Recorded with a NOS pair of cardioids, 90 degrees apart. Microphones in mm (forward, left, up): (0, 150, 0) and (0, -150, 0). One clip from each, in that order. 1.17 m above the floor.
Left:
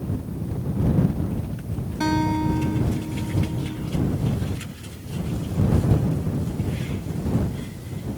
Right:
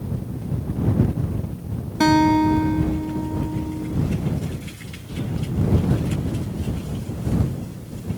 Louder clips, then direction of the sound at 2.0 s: Right 7 dB; 50° right.